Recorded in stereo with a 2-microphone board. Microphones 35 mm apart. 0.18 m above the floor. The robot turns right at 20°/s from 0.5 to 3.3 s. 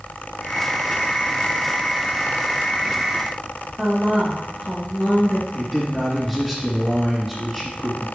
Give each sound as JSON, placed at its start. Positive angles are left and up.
{"t": 3.8, "sound": "a woman speaking", "side_deg": 0, "distance_m": 3.0}
{"t": 5.5, "sound": "a man speaking", "side_deg": 0, "distance_m": 2.5}